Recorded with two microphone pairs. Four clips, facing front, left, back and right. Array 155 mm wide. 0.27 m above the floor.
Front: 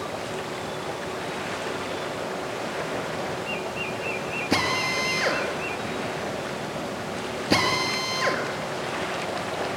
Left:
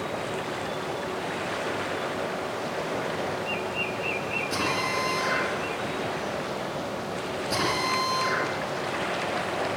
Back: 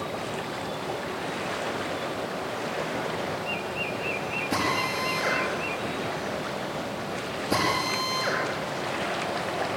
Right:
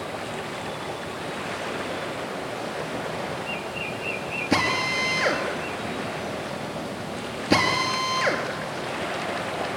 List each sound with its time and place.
4.5 s a drill: 45° right, 5.5 m